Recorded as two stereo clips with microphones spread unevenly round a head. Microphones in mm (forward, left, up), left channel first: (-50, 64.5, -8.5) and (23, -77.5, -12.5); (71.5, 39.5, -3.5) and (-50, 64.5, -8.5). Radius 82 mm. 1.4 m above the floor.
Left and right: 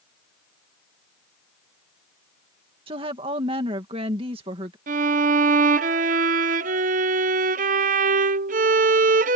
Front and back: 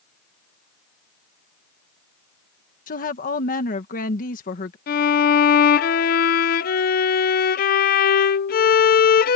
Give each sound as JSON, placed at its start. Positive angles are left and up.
{"t": 2.9, "sound": "a woman speaking", "azimuth_deg": 0}
{"t": 4.9, "sound": "a violin", "azimuth_deg": -15}